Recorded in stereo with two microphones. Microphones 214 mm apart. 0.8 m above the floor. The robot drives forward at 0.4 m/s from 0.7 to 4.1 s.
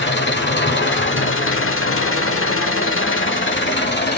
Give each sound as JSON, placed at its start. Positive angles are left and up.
{"t": 0.0, "sound": "an engine running", "side_deg": 60, "distance_m": 1.2}